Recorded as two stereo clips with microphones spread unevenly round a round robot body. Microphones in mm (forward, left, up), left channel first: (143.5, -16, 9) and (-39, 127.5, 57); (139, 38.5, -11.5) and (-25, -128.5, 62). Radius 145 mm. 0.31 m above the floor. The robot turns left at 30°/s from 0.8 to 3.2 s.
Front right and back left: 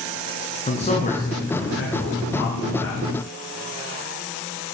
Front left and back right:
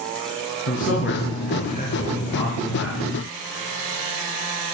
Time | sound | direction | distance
0.7 | a man speaking | 20° left | 4.5 m